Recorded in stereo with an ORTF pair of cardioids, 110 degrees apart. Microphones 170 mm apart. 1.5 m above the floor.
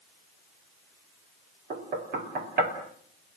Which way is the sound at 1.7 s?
60° right.